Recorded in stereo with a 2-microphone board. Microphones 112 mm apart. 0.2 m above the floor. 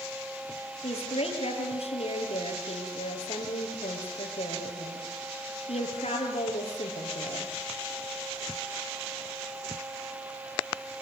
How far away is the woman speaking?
About 5 m.